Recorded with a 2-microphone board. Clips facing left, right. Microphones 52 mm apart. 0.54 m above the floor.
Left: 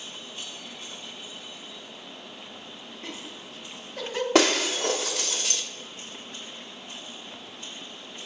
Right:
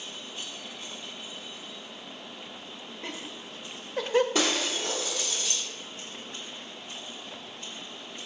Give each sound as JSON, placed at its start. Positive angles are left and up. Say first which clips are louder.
{"t": 3.0, "sound": "laughter", "louder": "right 1 dB", "side_deg": -25, "distance_m": 0.7}
{"t": 4.3, "sound": "breaking glass", "louder": "left 6 dB", "side_deg": 70, "distance_m": 0.7}